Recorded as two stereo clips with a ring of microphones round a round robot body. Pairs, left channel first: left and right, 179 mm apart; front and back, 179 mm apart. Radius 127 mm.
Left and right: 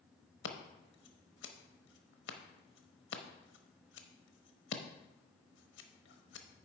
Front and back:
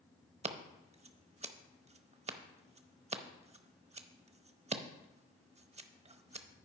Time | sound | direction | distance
0.4 | scissors | 125° left | 0.8 m